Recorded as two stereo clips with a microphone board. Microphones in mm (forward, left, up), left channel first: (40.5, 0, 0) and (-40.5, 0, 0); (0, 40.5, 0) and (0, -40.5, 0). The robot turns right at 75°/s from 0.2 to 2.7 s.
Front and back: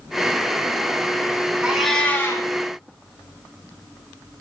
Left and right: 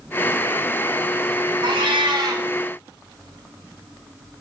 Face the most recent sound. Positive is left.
turn(degrees=-25)